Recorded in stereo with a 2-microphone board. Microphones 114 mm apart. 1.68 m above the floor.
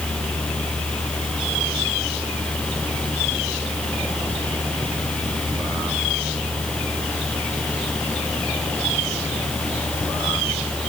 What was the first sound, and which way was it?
Only background noise.